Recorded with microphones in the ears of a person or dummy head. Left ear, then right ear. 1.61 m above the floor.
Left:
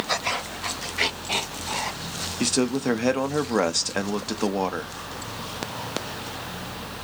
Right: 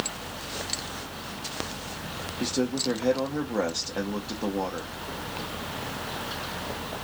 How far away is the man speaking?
About 0.6 m.